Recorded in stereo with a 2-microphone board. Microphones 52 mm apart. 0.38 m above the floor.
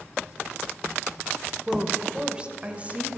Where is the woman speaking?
5° right (ahead or behind), 1.0 m; by 3.2 s 30° right (ahead or behind), 1.6 m.